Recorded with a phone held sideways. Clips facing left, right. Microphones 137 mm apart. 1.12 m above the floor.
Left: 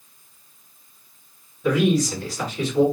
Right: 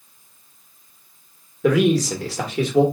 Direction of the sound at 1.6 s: 80° right.